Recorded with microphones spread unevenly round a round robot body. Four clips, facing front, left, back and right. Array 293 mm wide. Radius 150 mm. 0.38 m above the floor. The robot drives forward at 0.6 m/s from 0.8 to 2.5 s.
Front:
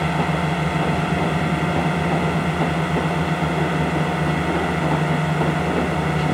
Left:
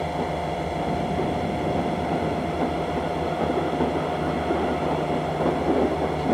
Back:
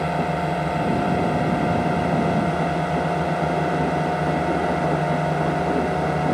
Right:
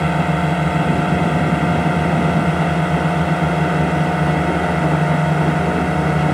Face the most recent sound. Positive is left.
turn(degrees=-90)